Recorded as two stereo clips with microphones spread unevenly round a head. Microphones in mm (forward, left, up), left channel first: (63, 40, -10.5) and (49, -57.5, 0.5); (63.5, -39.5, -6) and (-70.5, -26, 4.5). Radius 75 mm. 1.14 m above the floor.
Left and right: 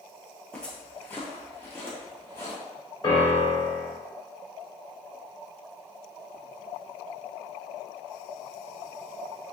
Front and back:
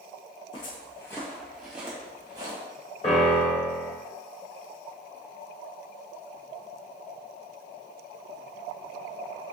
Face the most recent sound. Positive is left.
turn(degrees=45)